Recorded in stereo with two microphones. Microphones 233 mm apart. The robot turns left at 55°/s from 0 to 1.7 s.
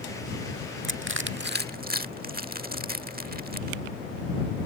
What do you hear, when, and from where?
0.8 s crushing: 55° right (ahead or behind); by 3.8 s 40° right (ahead or behind)